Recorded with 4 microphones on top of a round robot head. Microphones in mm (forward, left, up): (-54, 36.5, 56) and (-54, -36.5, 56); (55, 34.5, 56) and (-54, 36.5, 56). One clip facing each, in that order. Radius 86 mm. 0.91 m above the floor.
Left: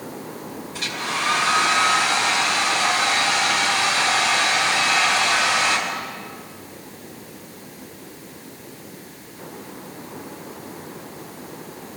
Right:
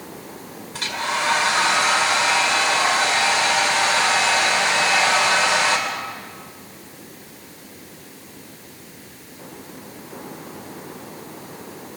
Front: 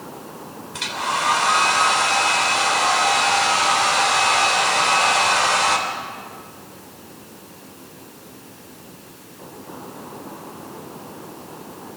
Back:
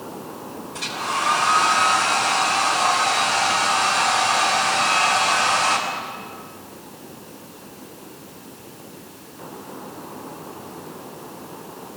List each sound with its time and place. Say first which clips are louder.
0.7 s a hair dryer: right 3 dB, front 2 dB; 35° right, 2.5 m